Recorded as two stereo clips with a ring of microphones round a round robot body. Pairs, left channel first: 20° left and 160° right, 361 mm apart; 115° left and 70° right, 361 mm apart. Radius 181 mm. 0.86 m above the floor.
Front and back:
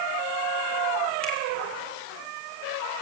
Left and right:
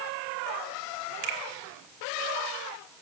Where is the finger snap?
65° right, 2 m.